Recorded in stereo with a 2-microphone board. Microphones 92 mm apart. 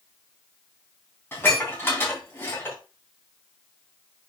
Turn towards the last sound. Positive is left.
turn(degrees=25)  # may be behind; listen again after turning